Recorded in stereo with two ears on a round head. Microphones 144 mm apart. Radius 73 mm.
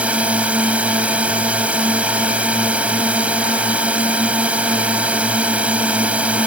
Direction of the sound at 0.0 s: 10° right (ahead or behind).